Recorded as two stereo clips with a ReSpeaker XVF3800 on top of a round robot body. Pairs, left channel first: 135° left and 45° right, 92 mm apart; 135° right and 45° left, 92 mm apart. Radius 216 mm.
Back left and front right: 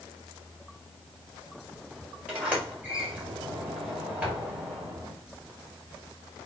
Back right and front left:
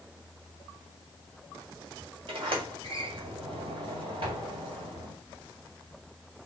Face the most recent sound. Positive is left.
turn(degrees=30)